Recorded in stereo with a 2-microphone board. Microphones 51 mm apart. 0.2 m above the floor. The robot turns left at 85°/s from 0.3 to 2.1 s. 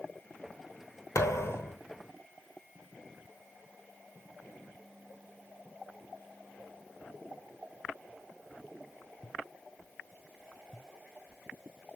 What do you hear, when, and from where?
1.1 s a thud: 90° left, 1.1 m; by 1.8 s 35° left, 1.1 m